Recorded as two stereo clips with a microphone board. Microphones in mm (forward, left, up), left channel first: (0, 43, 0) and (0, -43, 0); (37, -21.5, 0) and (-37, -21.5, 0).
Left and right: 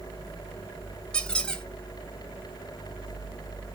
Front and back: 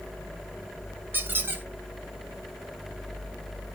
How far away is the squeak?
About 0.7 m.